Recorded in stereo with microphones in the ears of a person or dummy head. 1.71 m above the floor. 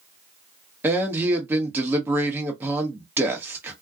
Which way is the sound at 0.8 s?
10° right (ahead or behind).